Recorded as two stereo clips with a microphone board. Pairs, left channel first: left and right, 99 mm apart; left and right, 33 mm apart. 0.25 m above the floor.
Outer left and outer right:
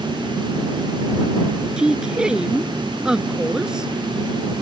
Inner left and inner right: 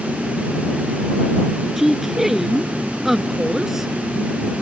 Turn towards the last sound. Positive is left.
turn(degrees=-5)  # may be behind; listen again after turning